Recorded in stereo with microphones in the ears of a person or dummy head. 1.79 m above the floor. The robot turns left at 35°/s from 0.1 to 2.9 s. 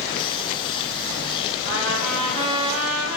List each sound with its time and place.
1.6 s a trumpet: 95° right, 3.5 m; by 3.2 s 140° right, 3.5 m